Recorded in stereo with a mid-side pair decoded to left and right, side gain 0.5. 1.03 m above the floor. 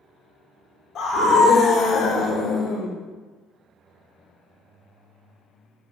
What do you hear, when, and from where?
0.9 s a scream: 60° left, 3 m; by 2.9 s 55° left, 5 m